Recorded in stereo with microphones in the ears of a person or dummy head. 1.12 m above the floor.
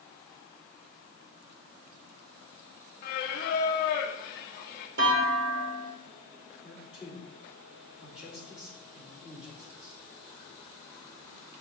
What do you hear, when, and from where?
3.0 s singing: 55° left (ahead or behind), 0.8 m
5.0 s a clunk: 60° right (ahead or behind), 1.3 m
6.6 s a man speaking: 15° right (ahead or behind), 2 m